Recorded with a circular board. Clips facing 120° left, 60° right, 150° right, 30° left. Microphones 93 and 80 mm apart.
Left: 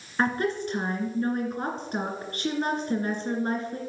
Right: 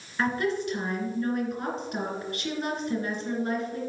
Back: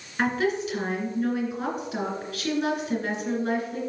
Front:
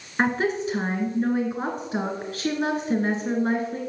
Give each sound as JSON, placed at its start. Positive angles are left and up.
{"t": 0.2, "sound": "a woman speaking", "azimuth_deg": 75, "distance_m": 2.5}